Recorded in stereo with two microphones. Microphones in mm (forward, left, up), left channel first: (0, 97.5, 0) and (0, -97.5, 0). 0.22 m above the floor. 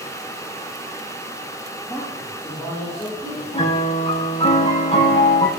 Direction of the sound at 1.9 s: 10° left (ahead or behind).